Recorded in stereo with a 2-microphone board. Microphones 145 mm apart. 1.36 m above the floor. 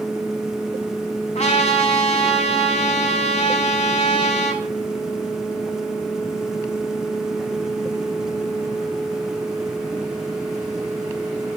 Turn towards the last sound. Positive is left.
turn(degrees=50)  # may be behind; listen again after turning